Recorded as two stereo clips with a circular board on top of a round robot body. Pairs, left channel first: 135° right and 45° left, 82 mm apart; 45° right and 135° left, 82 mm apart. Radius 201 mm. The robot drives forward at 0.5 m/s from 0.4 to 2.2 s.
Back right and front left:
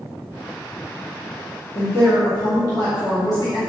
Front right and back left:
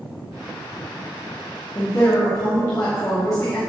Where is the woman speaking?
90° right, 2.5 m; by 3.6 s 95° right, 2.5 m.